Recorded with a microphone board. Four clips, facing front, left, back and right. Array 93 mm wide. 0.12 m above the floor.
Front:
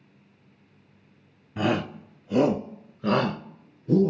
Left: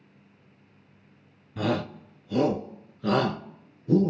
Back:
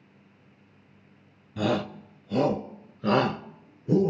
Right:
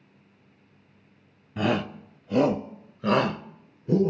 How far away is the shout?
About 1.5 m.